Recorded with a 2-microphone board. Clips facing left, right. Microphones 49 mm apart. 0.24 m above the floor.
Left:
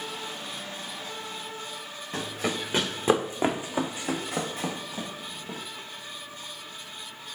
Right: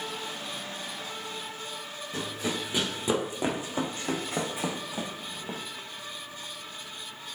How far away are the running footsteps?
About 1.4 m.